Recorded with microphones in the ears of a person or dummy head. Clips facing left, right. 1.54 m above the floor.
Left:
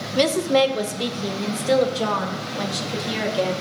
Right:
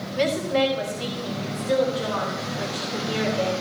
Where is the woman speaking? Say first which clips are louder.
Left 4 dB; 60° left (ahead or behind), 1.1 m; by 3.5 s 75° left (ahead or behind), 3 m.